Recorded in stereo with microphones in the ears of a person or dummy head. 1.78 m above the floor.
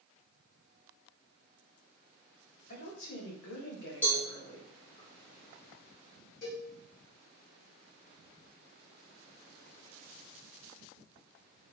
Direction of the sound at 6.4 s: 50° left (ahead or behind).